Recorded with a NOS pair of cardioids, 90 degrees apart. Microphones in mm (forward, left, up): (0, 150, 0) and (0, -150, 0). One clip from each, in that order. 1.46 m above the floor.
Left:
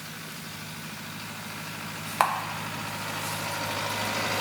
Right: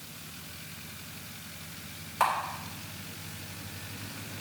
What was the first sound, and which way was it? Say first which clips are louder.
A camera shutter: left 2 dB; 55° left.